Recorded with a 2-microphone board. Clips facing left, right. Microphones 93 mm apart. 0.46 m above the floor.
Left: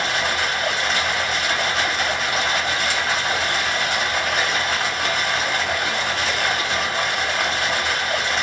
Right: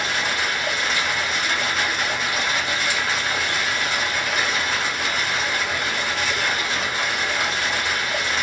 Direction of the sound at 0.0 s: 60° left (ahead or behind).